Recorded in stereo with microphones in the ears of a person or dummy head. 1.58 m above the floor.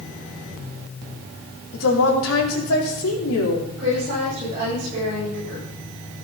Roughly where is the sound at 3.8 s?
Right.